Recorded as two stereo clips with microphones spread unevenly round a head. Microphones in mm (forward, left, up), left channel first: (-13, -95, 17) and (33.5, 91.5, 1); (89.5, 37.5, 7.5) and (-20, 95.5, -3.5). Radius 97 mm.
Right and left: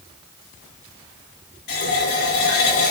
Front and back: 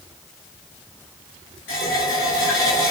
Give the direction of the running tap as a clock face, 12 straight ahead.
2 o'clock.